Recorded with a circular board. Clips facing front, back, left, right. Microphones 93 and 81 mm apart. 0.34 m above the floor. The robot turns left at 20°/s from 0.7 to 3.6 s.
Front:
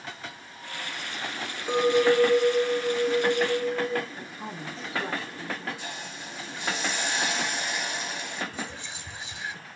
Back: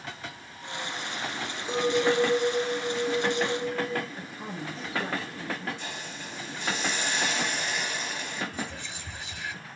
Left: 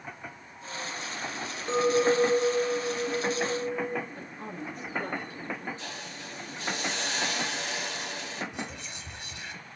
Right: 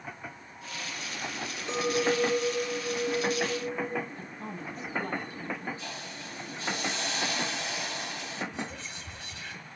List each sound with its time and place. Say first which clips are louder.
1.7 s a clink: front 4 dB, left 4 dB; 35° left, 3 m; by 4.0 s straight ahead, 3 m
4.2 s a woman speaking: even, left 1 dB; 90° left, 7 m
5.8 s a hiss: even, even; 85° left, 7 m
8.5 s whispering: back 1 dB, right 1 dB; 70° left, 5 m